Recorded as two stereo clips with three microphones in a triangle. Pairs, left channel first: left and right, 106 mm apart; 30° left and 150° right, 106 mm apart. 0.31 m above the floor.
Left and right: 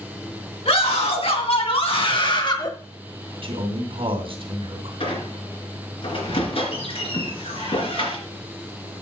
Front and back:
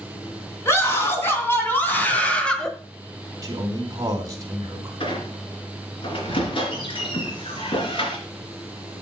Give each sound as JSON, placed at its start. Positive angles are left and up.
{"t": 0.7, "sound": "a scream", "azimuth_deg": 95, "distance_m": 4.0}
{"t": 3.4, "sound": "a man speaking", "azimuth_deg": -100, "distance_m": 2.5}
{"t": 5.0, "sound": "a squeak", "azimuth_deg": 65, "distance_m": 3.0}